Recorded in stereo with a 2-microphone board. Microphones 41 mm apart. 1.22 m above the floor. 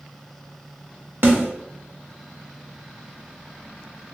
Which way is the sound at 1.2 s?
55° right (ahead or behind).